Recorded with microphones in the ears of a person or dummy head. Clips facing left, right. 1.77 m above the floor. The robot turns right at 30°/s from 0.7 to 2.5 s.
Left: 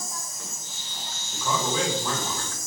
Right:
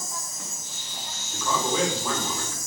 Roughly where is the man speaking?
Behind.